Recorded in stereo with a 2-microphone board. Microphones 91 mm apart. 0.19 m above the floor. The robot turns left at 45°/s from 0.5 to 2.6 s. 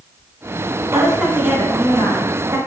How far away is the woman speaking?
About 1.4 m.